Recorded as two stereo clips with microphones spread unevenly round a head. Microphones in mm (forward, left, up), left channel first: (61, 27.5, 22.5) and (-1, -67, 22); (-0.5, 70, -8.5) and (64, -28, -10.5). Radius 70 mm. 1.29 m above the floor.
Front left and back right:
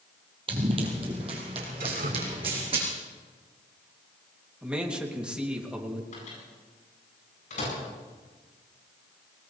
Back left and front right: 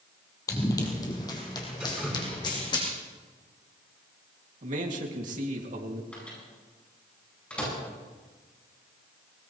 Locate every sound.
0.5 s running footsteps: 175° right, 2 m; by 2.8 s straight behind, 4 m
1.8 s dripping: 145° right, 4.5 m
4.6 s a man speaking: 45° right, 2.5 m
6.1 s a microwave: 45° left, 9.5 m